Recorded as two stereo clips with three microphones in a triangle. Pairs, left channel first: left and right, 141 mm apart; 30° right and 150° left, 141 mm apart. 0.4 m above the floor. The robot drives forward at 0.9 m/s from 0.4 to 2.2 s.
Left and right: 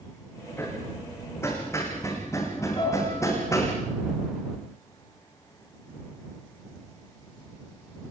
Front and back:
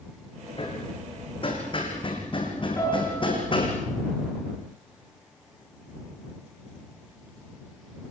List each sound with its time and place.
0.6 s hammering: 20° left, 7.5 m
2.8 s a piano: 40° left, 6 m